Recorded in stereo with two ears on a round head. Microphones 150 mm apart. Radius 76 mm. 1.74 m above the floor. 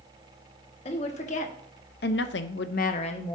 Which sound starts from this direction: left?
A woman speaking, at 0.8 s.